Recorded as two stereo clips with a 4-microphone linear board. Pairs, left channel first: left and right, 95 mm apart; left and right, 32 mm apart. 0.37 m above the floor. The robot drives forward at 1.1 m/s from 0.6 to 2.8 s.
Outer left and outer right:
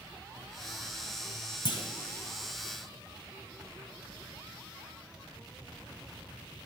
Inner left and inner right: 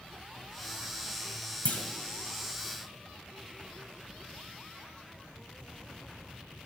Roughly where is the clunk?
Left.